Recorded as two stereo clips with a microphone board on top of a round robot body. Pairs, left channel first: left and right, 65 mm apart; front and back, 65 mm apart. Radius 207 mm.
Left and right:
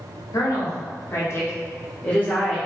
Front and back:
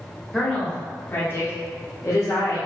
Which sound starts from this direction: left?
A woman speaking, at 0.3 s.